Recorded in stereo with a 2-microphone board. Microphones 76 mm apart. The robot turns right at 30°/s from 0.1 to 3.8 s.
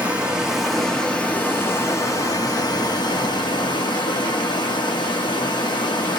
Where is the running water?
15° right, 0.8 m; by 6.2 s 95° left, 0.8 m.